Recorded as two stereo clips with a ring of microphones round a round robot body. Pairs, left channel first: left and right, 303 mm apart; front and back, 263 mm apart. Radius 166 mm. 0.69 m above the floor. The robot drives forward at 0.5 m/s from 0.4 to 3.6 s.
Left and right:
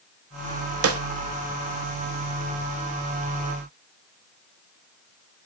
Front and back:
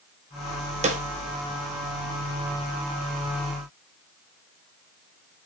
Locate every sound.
0.8 s a snare drum: 120° right, 1.0 m; by 1.0 s 125° right, 1.0 m